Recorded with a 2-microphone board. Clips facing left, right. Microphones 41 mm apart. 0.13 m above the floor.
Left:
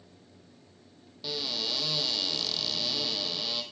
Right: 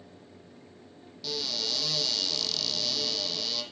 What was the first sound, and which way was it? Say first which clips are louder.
A cupboard door: even; 15° left (ahead or behind).